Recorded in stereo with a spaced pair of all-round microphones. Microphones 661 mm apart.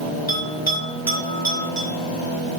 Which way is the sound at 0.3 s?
90° left.